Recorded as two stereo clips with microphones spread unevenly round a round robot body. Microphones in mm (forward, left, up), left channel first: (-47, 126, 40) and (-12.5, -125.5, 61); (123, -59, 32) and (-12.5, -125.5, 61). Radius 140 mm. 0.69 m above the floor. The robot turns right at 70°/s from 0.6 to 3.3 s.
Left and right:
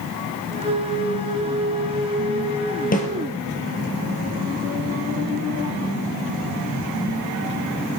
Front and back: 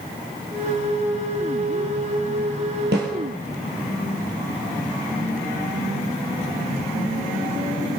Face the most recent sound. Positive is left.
turn(degrees=-175)